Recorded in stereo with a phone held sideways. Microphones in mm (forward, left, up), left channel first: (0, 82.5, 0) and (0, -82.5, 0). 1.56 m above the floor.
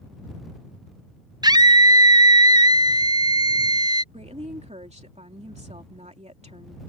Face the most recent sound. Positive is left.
turn(degrees=-40)  # may be behind; listen again after turning